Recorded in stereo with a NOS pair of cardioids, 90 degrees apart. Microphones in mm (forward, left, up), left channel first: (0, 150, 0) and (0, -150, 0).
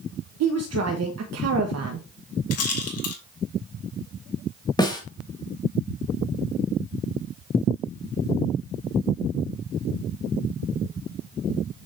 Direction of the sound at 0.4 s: 60° right.